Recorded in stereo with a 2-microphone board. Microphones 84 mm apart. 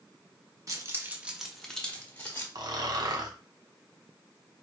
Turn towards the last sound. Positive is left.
turn(degrees=-50)  # may be behind; listen again after turning